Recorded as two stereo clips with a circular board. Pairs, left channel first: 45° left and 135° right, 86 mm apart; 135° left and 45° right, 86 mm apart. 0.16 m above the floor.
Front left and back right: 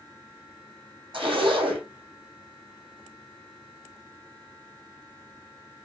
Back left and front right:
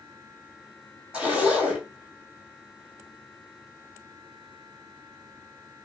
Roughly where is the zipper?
Behind right.